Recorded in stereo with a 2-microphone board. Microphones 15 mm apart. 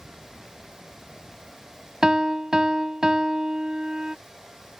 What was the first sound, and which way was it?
A piano, 50° right (ahead or behind).